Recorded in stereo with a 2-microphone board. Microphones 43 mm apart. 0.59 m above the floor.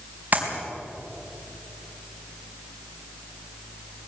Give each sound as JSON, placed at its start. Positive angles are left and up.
{"t": 0.3, "sound": "a clap", "side_deg": -40, "distance_m": 4.0}